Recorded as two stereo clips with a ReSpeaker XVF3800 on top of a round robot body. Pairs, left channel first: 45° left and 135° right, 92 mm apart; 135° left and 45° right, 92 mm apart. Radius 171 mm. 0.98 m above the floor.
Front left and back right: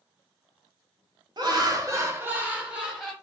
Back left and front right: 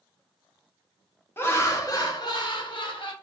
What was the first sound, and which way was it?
Laughter, 165° right.